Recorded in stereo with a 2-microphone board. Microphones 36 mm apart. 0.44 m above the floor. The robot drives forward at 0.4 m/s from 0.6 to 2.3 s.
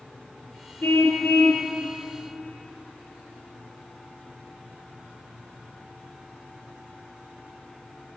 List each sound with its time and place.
0.8 s a car horn: 65° left (ahead or behind), 3.5 m; by 1.7 s 70° left (ahead or behind), 3.5 m